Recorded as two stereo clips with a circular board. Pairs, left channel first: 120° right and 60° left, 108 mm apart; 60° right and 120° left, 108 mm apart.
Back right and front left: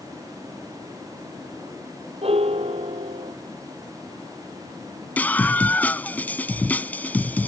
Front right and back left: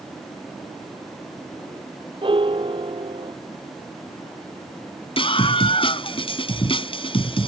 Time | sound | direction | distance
2.2 | a piano | 85° left | ?
5.2 | a scream | 45° right | ?